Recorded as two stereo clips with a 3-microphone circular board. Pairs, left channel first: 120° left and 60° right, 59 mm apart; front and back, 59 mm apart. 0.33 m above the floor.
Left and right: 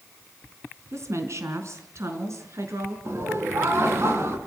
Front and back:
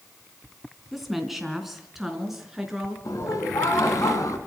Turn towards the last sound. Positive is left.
turn(degrees=-20)